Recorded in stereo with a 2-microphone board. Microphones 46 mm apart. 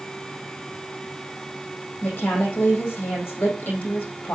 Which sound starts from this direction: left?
A woman speaking, at 2.0 s.